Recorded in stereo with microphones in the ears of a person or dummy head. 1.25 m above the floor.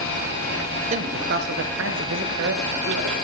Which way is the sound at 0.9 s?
30° right (ahead or behind).